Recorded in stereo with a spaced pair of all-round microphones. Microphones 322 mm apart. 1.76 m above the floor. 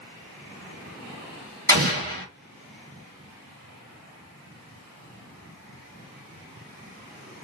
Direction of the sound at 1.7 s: 30° right (ahead or behind).